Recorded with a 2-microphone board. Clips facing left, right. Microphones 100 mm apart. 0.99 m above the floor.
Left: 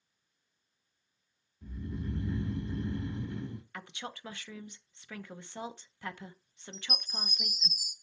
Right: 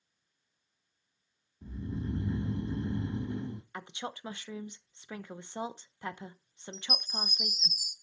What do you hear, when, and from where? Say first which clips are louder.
1.6 s snoring: right 2 dB; 30° right (ahead or behind), 0.9 m
3.7 s a woman speaking: right 3 dB; 20° right (ahead or behind), 0.6 m
6.7 s a chime: right 3 dB; 5° left (ahead or behind), 3.5 m